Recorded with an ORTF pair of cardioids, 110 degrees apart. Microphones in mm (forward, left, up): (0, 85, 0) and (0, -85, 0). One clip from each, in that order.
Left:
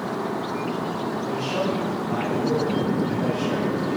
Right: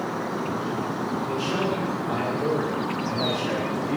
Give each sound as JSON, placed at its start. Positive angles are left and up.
{"t": 1.2, "sound": "a man speaking", "azimuth_deg": -55, "distance_m": 4.0}